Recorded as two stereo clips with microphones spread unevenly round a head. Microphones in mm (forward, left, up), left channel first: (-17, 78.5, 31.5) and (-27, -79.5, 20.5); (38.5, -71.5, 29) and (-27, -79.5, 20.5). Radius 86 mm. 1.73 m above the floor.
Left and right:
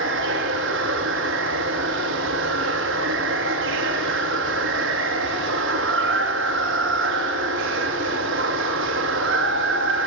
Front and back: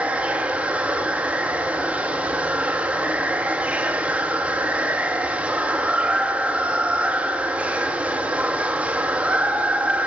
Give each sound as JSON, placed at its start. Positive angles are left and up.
{"t": 0.0, "sound": "running water", "azimuth_deg": -100, "distance_m": 3.0}